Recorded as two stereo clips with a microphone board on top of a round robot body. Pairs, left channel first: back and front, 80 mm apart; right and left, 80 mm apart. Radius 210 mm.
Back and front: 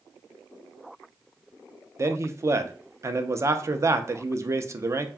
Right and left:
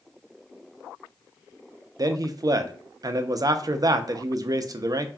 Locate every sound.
2.0 s a man speaking: 50° left, 0.5 m